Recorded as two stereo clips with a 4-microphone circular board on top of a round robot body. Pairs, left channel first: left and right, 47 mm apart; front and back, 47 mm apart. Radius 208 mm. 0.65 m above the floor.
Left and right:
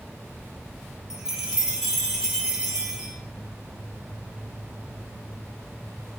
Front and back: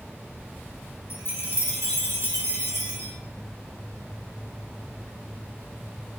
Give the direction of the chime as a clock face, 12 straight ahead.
12 o'clock.